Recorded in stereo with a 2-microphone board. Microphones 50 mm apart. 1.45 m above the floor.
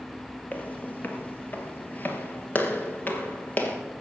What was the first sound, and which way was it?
Footsteps, 30° left (ahead or behind).